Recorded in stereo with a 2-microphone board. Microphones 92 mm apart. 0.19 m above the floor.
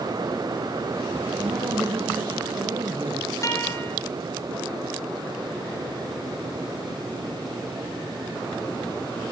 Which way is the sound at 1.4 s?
60° right (ahead or behind).